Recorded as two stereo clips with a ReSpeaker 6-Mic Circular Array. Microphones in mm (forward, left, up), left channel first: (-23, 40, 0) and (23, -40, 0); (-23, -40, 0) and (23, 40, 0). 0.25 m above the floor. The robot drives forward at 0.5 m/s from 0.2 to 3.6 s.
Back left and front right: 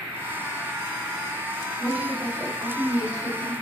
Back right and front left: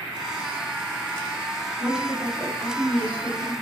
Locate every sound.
1.8 s a woman speaking: 20° right, 1.1 m; by 3.5 s 130° right, 0.9 m